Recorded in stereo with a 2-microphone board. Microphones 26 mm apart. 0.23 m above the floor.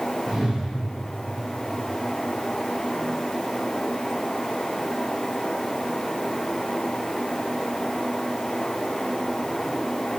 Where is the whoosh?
15° right (ahead or behind), 3.5 m.